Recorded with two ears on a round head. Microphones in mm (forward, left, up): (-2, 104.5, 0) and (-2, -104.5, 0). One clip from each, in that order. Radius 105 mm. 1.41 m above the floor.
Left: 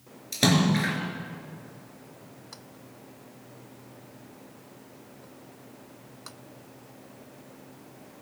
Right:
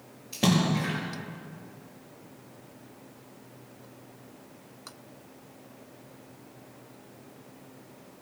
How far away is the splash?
About 4.5 m.